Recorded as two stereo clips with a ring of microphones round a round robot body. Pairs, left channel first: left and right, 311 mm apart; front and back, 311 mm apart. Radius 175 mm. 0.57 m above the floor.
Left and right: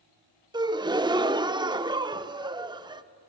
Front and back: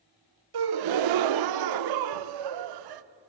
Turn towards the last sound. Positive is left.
turn(degrees=-165)